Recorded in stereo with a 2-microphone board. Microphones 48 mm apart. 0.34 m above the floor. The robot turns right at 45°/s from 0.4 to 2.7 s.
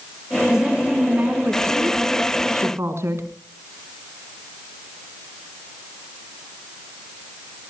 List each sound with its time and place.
0.5 s a woman speaking: 170° right, 3.5 m; by 3.3 s 70° right, 3.5 m